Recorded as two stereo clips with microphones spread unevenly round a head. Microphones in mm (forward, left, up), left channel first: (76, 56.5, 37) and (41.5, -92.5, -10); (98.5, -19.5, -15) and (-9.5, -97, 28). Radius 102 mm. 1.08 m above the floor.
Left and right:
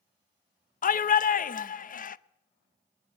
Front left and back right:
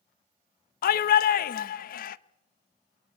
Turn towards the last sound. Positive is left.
turn(degrees=40)